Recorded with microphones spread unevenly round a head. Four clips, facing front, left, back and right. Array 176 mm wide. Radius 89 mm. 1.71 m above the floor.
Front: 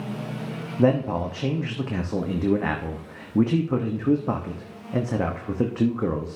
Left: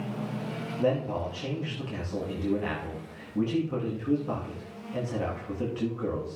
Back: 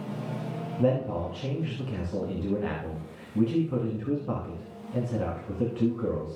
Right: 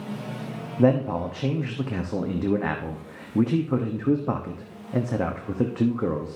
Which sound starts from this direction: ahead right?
A man speaking, at 0.8 s.